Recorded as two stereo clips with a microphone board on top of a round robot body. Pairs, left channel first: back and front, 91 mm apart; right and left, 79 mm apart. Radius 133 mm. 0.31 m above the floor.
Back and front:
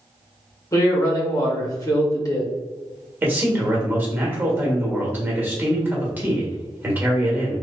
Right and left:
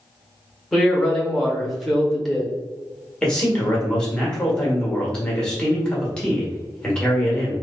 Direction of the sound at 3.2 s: 30° right.